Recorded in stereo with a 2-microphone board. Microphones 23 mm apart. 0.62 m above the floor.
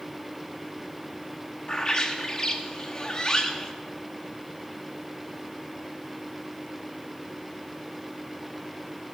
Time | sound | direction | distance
1.7 | a bird | 25° left (ahead or behind) | 1.0 m